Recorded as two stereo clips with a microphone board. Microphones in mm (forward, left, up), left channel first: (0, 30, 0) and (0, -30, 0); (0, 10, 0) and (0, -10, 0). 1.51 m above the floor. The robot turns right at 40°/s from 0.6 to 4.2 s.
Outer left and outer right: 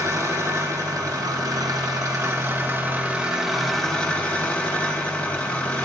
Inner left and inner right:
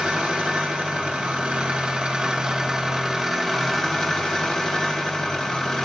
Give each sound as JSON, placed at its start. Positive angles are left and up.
{"t": 0.0, "sound": "an engine running", "azimuth_deg": -120, "distance_m": 1.7}